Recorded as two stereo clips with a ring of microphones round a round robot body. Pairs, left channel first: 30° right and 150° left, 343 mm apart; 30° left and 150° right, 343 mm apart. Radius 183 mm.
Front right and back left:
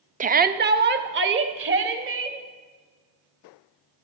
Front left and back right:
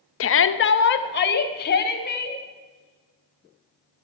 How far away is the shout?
About 0.8 m.